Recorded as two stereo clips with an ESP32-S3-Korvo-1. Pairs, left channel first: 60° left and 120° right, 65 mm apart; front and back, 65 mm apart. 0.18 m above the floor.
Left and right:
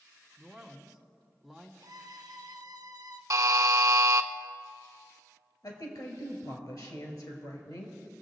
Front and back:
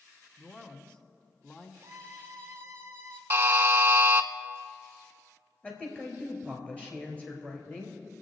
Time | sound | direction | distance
0.4 | a man speaking | 30° right | 1.1 m
1.8 | a violin | 130° right | 0.9 m
3.3 | a buzzer | 130° right | 0.5 m
5.6 | a woman speaking | 70° left | 3 m